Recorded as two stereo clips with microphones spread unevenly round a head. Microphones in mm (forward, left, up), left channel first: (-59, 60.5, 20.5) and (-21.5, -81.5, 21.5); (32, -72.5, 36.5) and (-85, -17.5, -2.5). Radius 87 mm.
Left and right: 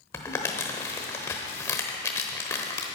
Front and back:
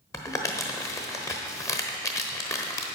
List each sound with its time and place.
0.1 s crumpling: 30° left, 0.9 m